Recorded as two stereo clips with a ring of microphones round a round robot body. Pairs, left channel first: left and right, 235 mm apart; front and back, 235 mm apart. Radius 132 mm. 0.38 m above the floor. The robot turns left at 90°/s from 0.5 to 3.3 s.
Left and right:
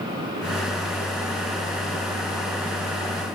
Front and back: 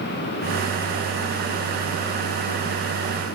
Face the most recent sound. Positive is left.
No sound to turn to.